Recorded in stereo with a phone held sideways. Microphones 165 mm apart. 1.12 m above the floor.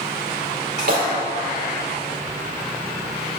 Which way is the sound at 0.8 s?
65° right (ahead or behind).